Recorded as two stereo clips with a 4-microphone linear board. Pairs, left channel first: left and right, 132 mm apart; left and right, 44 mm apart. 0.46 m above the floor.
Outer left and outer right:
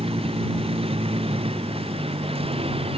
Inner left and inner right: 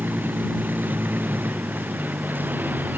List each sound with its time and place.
0.0 s a vehicle: 45° right (ahead or behind)